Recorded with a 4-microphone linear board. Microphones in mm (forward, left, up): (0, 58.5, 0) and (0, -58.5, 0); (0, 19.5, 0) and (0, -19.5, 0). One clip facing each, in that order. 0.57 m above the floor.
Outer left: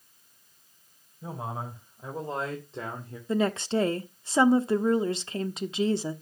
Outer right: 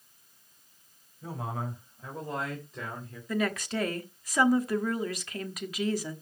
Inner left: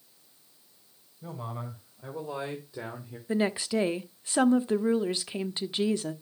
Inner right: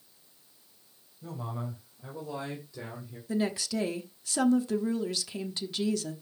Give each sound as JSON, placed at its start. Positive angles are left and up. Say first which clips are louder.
{"t": 1.2, "sound": "a man speaking", "louder": "even, even", "side_deg": 20, "distance_m": 3.0}
{"t": 3.3, "sound": "a woman speaking", "louder": "outer left 4 dB, inner left 3 dB", "side_deg": 25, "distance_m": 0.9}